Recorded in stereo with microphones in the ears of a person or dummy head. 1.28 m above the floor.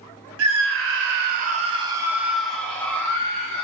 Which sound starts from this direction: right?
A scream, at 0.4 s.